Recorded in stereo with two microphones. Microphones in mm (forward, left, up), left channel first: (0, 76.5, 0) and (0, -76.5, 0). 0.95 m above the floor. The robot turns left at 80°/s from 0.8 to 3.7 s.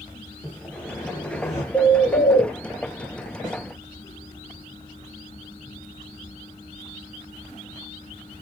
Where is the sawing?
165° left, 1.0 m; by 1.6 s 100° left, 1.0 m.